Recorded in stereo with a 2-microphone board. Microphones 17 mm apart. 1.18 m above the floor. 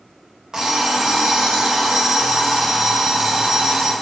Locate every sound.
0.5 s an alarm clock: 40° right (ahead or behind), 0.5 m